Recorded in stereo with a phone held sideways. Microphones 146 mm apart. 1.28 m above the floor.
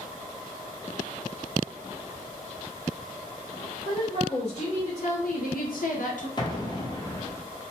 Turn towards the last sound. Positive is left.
turn(degrees=30)  # may be behind; listen again after turning